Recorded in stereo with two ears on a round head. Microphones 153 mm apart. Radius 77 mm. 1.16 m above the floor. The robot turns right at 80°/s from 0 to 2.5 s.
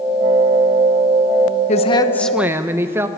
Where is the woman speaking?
130° left, 0.9 m; by 3.1 s 165° right, 0.9 m.